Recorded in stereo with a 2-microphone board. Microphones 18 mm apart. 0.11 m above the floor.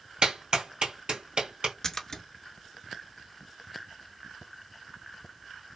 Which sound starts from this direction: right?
A clap, at 0.2 s.